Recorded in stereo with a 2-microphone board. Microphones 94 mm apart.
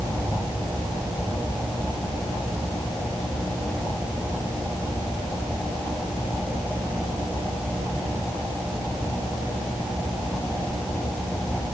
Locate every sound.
Only background noise.